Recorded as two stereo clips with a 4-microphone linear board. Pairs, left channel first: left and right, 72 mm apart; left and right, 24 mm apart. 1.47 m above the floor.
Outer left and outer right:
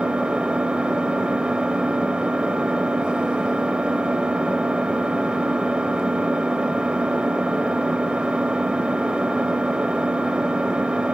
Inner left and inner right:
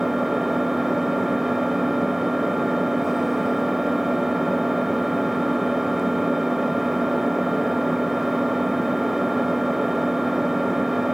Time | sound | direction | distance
0.0 | an engine running | 15° right (ahead or behind) | 2 m